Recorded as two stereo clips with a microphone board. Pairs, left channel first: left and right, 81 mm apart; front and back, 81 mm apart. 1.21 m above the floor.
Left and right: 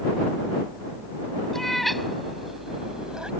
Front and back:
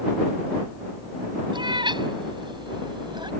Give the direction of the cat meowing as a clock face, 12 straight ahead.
6 o'clock.